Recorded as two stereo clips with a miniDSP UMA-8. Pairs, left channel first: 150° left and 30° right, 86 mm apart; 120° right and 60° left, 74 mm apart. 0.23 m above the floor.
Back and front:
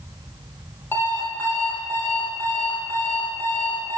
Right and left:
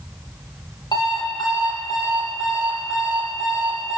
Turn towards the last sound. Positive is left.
turn(degrees=-145)